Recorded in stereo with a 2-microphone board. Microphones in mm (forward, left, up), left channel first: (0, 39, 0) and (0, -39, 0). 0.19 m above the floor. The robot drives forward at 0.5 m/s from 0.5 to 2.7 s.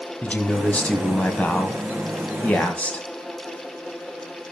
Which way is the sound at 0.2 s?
15° left (ahead or behind).